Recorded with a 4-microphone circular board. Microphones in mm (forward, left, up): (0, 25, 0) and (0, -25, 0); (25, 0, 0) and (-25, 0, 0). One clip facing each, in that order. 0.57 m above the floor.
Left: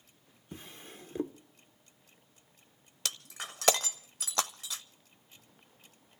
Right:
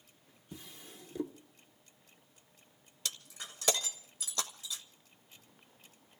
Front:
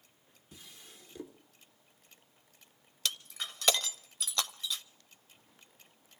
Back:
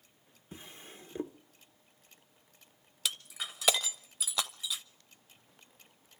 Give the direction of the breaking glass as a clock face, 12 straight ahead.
9 o'clock.